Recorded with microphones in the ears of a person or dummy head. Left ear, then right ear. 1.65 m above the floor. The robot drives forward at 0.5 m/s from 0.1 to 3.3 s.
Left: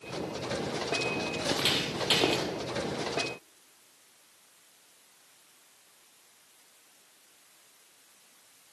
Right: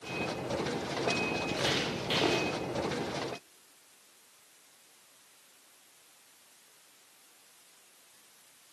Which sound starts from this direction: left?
Footsteps, at 1.4 s.